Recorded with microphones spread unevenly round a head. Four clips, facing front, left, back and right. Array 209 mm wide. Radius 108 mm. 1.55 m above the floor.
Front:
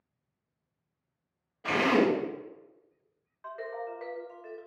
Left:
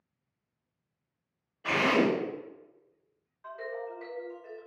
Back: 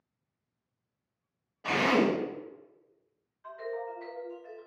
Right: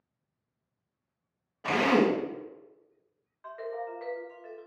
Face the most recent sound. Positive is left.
turn(degrees=-15)